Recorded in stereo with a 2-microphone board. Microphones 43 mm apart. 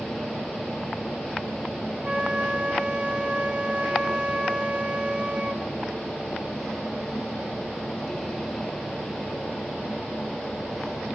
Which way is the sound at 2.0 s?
20° right (ahead or behind).